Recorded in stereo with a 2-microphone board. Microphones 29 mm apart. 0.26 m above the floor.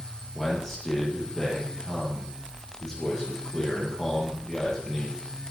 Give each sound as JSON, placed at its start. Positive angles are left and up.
{"t": 0.3, "sound": "a man speaking", "side_deg": 10, "distance_m": 8.5}